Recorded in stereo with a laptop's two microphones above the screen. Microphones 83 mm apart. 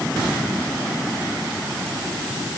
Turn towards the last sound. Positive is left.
No sound to turn to.